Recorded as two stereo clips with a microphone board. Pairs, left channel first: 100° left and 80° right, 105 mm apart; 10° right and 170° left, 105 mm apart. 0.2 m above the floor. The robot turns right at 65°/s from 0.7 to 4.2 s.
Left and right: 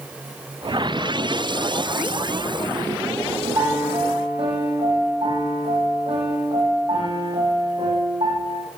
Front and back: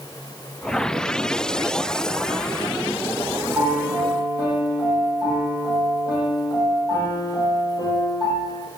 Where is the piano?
105° right, 7.5 m; by 8.6 s 65° right, 7.5 m.